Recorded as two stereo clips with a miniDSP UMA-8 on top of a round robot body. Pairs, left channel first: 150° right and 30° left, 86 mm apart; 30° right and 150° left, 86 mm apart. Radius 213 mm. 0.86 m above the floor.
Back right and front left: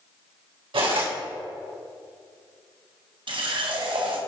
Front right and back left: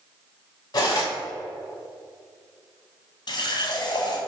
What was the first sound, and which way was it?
Cutlery clinking, 15° left.